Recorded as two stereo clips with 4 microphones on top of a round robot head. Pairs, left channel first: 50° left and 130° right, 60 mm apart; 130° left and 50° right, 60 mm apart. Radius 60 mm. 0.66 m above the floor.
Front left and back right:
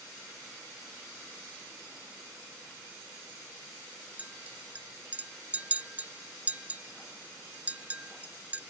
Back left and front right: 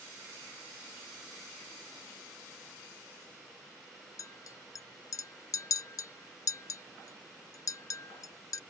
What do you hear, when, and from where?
4.2 s a clink: 160° left